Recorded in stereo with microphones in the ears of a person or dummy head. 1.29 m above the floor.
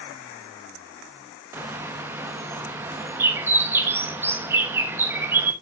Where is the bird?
10° right (ahead or behind), 1.2 m.